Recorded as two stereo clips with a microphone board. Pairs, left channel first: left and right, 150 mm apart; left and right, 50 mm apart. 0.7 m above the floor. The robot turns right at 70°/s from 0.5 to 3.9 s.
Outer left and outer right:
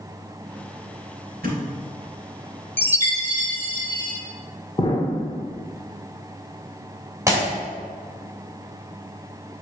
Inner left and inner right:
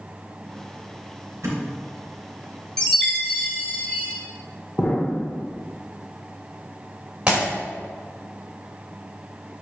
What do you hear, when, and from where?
1.4 s a thud: 80° right, 2.5 m; by 1.6 s 70° right (ahead or behind), 2.5 m
2.8 s a chime: 25° left, 1.2 m; by 4.1 s 105° left, 1.2 m
4.8 s an explosion: 30° left (ahead or behind), 0.7 m
7.3 s breaking glass: 20° right (ahead or behind), 2.0 m